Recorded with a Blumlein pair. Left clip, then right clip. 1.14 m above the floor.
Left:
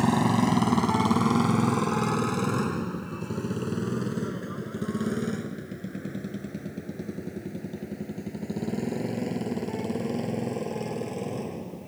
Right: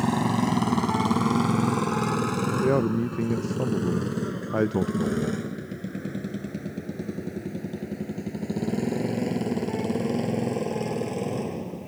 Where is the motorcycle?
5° left; by 11.9 s 10° right.